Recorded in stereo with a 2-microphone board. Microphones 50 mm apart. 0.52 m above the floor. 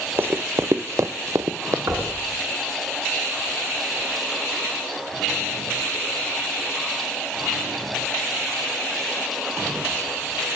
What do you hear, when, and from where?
0.2 s running footsteps: 40° right (ahead or behind), 0.8 m; by 1.8 s 60° right (ahead or behind), 1.0 m
1.9 s knocking: 65° right (ahead or behind), 5 m